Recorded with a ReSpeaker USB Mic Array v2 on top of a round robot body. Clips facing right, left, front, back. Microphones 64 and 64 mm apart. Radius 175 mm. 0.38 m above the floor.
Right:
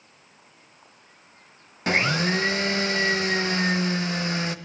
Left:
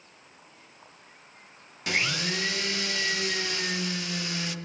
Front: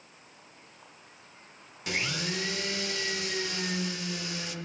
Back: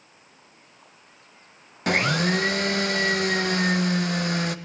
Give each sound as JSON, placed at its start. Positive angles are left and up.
{"t": 1.9, "sound": "a blender", "azimuth_deg": -145, "distance_m": 1.0}